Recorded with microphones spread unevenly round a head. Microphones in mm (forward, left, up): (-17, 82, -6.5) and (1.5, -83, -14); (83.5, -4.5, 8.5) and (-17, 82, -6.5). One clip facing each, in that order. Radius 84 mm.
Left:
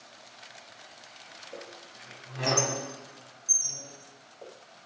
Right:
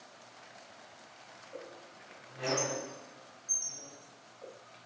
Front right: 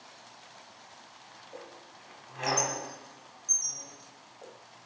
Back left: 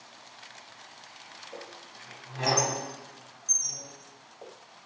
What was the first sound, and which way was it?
A squeak, 85° left.